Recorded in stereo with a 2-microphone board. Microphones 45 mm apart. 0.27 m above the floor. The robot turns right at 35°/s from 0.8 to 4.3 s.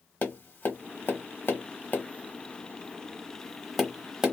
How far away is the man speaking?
I don't hear a man speaking.